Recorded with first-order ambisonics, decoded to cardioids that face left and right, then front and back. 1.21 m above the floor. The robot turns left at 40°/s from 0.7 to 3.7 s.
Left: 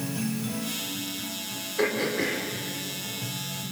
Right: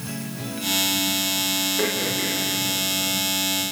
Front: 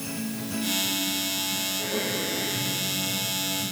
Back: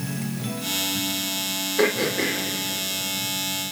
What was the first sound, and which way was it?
Throat clearing, straight behind.